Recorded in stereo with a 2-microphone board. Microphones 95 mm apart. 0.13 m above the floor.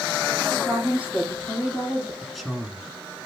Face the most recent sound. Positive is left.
turn(degrees=0)  # may be behind; listen again after turning